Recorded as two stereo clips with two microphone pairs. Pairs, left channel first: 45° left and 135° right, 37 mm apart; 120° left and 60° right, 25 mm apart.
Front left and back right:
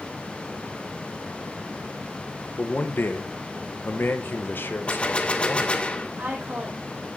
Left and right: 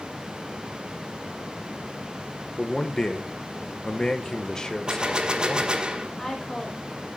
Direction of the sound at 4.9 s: 5° right.